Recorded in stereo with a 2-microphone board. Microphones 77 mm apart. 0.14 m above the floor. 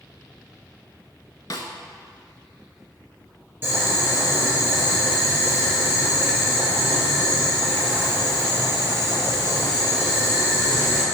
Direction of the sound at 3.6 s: 30° right (ahead or behind).